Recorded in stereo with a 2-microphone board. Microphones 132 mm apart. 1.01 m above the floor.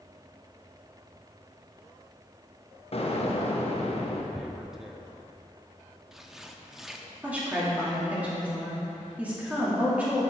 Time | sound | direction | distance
2.9 | an explosion | 50° left (ahead or behind) | 1.0 m
4.3 | tearing paper | centre (ahead or behind) | 0.6 m
7.2 | a woman speaking | 10° right (ahead or behind) | 2.5 m